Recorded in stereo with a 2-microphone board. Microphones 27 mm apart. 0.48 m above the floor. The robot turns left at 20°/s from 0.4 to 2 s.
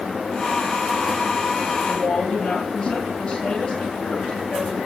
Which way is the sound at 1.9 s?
30° left (ahead or behind).